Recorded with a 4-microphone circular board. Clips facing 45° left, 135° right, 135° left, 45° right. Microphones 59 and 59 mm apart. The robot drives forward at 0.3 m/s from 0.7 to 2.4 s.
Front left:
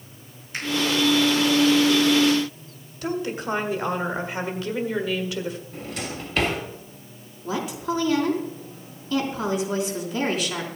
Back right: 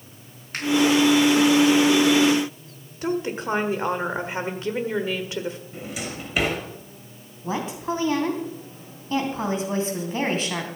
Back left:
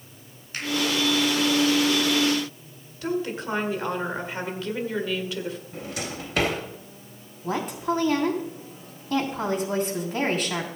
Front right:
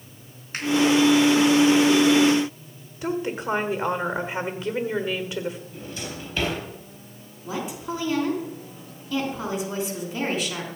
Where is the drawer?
145° left, 3 m.